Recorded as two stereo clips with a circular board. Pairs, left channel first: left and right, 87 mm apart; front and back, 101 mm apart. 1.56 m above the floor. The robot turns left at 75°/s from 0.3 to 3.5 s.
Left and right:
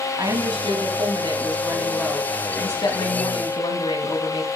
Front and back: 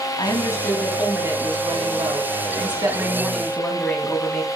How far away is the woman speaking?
About 3 m.